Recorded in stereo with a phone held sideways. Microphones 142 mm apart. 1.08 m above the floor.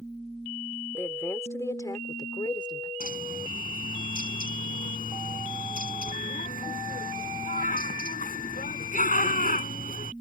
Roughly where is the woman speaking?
Centre.